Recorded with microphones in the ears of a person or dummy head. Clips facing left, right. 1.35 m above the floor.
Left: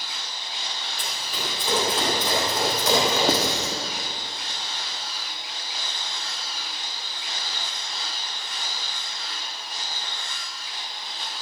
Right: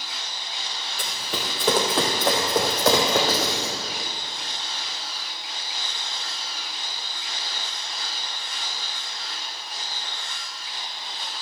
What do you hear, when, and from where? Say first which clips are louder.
1.0 s running footsteps: right 3 dB; 50° right (ahead or behind), 2.5 m
3.3 s writing: left 2 dB; 20° left (ahead or behind), 1.2 m